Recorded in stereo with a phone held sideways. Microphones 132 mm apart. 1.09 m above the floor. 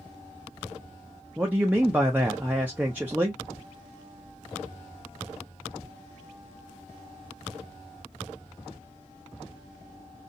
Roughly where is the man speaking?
Centre.